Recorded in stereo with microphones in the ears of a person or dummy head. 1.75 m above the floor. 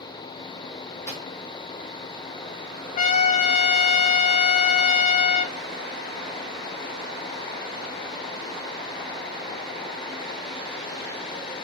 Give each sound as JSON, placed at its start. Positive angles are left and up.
{"t": 1.1, "sound": "a microwave", "side_deg": 15, "distance_m": 2.0}
{"t": 3.0, "sound": "a trumpet", "side_deg": 40, "distance_m": 1.0}